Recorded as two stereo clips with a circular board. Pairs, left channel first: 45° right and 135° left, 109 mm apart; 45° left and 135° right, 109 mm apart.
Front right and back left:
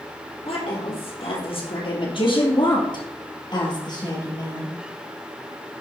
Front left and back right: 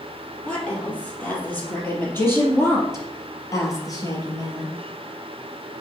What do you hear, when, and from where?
0.5 s a woman speaking: 35° right, 4 m; by 4.8 s 5° left, 3 m